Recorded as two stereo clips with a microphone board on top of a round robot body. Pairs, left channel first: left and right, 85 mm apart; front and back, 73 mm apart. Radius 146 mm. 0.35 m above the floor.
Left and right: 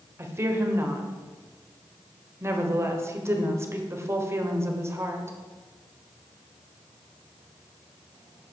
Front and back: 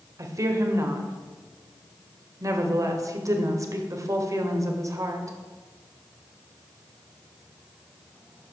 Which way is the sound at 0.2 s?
145° right.